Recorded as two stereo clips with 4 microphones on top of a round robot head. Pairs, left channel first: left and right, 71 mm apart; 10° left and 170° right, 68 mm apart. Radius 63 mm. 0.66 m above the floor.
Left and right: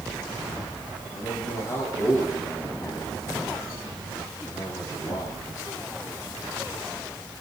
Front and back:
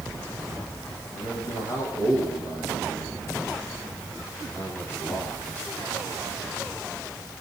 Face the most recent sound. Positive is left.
turn(degrees=65)